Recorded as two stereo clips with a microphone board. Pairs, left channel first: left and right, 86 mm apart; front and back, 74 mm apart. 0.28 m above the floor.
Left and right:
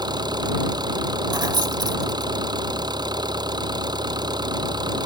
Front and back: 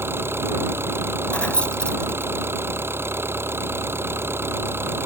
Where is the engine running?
125° right.